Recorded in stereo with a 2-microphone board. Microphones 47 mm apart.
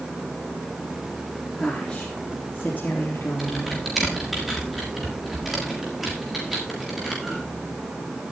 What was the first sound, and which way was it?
A woman speaking, 15° left (ahead or behind).